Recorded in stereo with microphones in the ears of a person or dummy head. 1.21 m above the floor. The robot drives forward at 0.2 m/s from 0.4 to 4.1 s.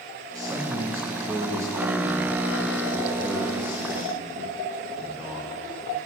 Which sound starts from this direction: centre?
A man speaking, at 0.3 s.